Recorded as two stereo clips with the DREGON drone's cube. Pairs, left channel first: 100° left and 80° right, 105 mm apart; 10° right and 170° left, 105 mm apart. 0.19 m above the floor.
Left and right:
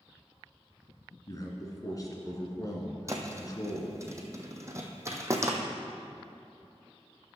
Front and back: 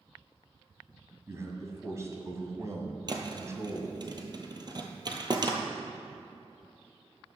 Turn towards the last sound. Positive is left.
turn(degrees=-140)